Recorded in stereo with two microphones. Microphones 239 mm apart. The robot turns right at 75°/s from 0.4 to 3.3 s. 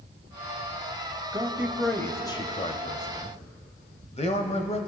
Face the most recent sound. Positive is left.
turn(degrees=25)  # may be behind; listen again after turning